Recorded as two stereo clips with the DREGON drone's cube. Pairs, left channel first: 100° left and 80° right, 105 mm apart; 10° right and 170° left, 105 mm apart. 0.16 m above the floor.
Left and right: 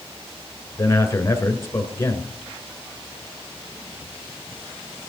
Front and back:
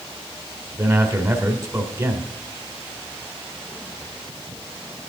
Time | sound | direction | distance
0.8 | a man speaking | 140° left | 1.5 m